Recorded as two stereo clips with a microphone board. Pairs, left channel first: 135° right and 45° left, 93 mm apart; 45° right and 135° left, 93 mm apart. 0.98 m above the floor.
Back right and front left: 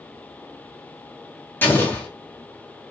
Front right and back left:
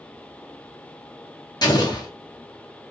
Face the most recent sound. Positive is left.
turn(degrees=-70)